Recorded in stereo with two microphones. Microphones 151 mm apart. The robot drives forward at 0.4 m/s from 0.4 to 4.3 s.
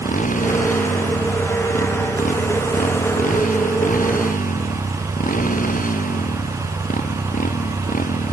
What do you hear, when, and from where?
0.0 s a motorcycle: 60° left (ahead or behind); by 8.3 s 65° left (ahead or behind)